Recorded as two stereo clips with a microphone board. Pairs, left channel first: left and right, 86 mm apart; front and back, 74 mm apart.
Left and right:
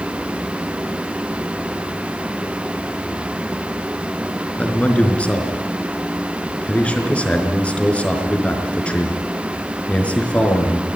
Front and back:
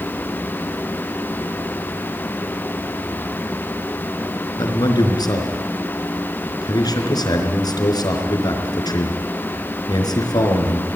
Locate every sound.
4.6 s a man speaking: 15° left, 4.5 m